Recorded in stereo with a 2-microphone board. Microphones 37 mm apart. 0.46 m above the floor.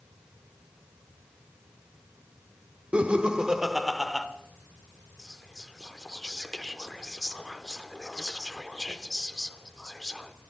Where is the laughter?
30° right (ahead or behind), 1.2 m; by 4.2 s 5° left (ahead or behind), 1.4 m.